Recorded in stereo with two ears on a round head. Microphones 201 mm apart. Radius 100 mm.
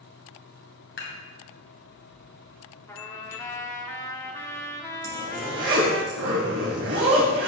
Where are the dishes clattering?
55° left (ahead or behind), 2.5 m.